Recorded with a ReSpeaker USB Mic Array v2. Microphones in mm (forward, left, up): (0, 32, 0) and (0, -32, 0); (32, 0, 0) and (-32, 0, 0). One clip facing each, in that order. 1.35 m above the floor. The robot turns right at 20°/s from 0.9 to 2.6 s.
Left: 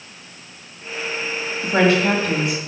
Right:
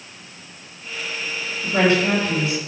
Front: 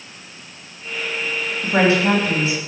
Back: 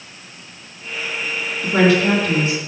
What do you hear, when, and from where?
1.6 s a woman speaking: 55° left, 2.0 m; by 2.6 s 70° left, 2.0 m